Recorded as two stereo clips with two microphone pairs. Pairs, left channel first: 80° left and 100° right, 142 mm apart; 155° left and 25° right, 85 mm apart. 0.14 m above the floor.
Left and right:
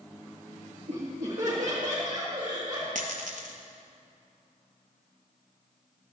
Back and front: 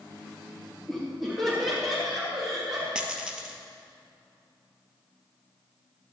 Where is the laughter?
115° right, 2.5 m.